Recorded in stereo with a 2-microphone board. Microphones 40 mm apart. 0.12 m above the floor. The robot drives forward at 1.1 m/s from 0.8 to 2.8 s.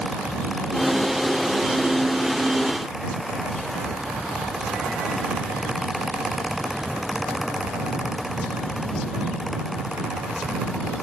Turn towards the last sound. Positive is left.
No sound to turn to.